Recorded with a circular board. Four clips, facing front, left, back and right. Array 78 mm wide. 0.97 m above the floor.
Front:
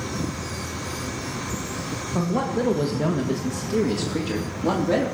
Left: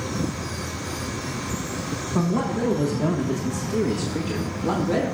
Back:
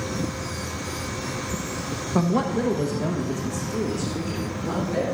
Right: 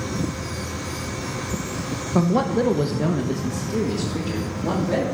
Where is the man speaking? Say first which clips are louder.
Right 4 dB, back 2 dB; 125° right, 1.0 m; by 5.0 s 10° right, 2.5 m.